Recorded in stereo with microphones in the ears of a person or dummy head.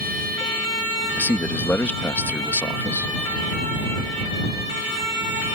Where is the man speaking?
10° left (ahead or behind).